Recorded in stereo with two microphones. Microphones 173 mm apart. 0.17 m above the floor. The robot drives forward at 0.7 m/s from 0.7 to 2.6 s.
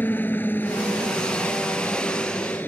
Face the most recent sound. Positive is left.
turn(degrees=10)  # may be behind; listen again after turning